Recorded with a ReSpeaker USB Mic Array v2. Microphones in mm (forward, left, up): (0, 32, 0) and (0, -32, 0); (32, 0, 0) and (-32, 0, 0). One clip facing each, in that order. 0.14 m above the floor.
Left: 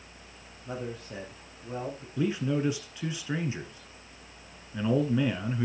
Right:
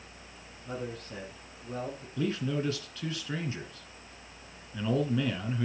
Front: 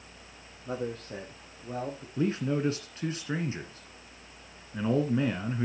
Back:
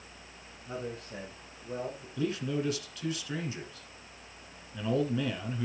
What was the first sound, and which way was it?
A man speaking, 5° left.